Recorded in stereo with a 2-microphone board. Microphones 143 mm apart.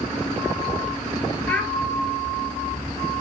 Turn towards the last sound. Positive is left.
turn(degrees=10)  # may be behind; listen again after turning